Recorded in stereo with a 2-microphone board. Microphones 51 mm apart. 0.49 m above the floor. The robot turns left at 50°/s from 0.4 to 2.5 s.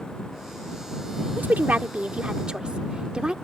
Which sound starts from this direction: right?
A woman speaking, at 1.4 s.